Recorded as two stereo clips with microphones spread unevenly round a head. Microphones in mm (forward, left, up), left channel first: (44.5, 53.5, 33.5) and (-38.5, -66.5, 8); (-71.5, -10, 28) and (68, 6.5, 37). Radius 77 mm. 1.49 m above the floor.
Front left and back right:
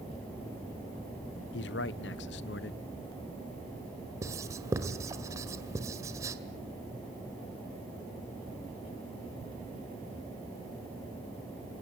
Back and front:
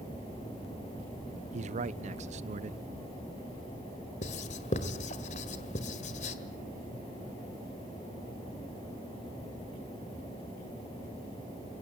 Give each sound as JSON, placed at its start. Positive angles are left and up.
{"t": 1.5, "sound": "a man speaking", "azimuth_deg": 50, "distance_m": 0.8}
{"t": 4.2, "sound": "writing", "azimuth_deg": 160, "distance_m": 1.5}